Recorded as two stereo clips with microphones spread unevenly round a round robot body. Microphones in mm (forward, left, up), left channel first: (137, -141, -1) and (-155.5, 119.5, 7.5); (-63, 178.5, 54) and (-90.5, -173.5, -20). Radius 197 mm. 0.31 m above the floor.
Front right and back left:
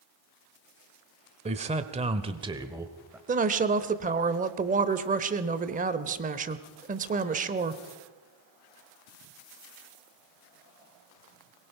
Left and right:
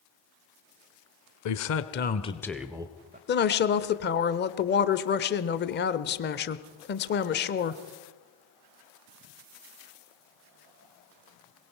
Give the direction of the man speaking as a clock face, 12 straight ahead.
10 o'clock.